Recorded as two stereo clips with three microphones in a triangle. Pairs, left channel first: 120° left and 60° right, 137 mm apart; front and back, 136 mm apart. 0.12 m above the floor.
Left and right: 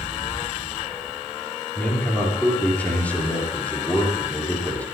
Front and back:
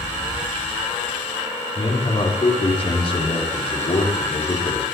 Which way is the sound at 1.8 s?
40° left.